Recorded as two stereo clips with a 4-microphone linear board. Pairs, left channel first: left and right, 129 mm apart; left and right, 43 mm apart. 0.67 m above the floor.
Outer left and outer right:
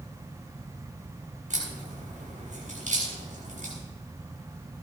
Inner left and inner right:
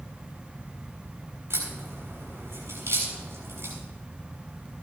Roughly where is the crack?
Right.